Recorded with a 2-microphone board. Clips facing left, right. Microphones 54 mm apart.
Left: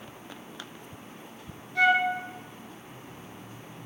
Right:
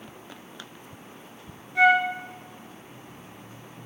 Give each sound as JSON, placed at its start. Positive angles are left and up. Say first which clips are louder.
{"t": 1.8, "sound": "a flute", "louder": "right 3 dB", "side_deg": -20, "distance_m": 1.0}